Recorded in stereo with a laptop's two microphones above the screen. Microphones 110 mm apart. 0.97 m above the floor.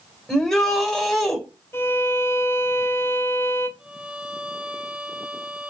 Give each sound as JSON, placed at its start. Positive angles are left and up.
{"t": 0.3, "sound": "a shout", "side_deg": 5, "distance_m": 4.0}
{"t": 1.7, "sound": "a violin", "side_deg": 20, "distance_m": 0.9}
{"t": 3.8, "sound": "a violin", "side_deg": -10, "distance_m": 1.6}